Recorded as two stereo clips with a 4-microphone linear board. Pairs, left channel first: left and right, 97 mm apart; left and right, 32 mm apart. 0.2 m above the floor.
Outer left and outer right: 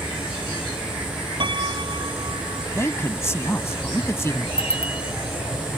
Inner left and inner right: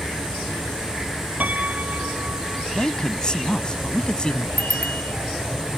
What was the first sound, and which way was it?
A piano, 60° right (ahead or behind).